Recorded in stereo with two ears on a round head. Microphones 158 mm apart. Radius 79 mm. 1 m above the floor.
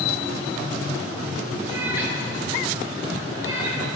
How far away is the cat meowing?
About 6 m.